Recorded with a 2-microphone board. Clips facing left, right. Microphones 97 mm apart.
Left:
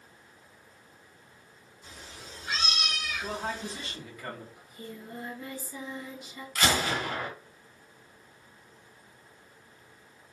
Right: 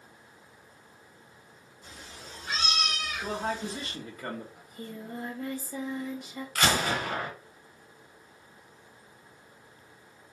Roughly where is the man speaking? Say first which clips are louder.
Right 4 dB; right.